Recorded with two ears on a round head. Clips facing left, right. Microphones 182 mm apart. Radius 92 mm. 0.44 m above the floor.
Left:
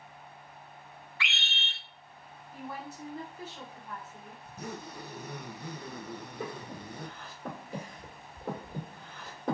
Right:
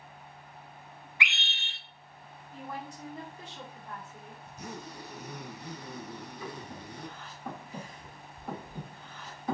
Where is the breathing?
45° left (ahead or behind), 1.6 m.